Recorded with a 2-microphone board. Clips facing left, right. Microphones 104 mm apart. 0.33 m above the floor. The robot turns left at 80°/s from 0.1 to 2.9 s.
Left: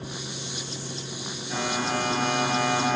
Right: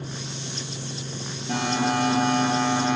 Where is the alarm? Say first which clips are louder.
Right 4 dB; 65° right, 9.5 m; by 3.0 s straight behind, 9.5 m.